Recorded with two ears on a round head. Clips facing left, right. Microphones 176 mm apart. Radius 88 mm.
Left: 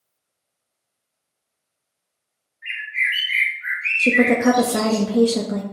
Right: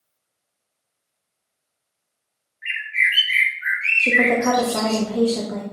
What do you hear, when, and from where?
2.6 s a bird: 20° right (ahead or behind), 3 m
4.0 s a woman speaking: 35° left (ahead or behind), 1.2 m